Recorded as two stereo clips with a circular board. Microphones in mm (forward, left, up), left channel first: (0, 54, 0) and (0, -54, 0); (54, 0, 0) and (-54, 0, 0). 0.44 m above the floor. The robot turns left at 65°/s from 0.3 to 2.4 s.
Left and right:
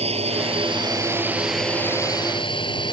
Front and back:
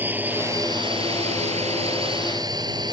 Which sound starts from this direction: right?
A drone, at 0.0 s.